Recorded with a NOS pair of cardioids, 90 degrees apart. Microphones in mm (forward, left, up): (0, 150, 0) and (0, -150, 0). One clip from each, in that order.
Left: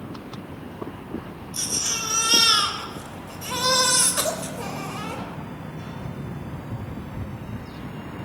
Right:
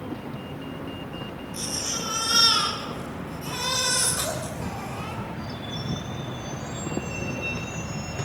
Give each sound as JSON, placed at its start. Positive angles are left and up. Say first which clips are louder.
{"t": 1.5, "sound": "a baby crying", "louder": "left 4 dB", "azimuth_deg": 45, "distance_m": 3.5}